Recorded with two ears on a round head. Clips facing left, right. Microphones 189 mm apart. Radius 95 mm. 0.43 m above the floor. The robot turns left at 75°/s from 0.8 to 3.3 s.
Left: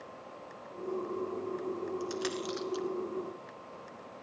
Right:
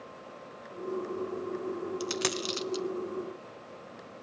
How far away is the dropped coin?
About 0.8 m.